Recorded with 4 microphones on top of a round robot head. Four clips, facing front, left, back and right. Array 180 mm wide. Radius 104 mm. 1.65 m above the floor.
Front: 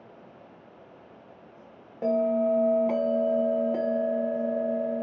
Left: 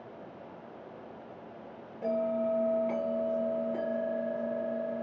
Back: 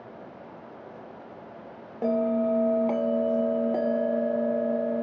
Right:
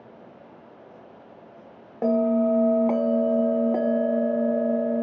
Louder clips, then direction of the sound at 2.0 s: Right 9 dB, front 1 dB; 110° right.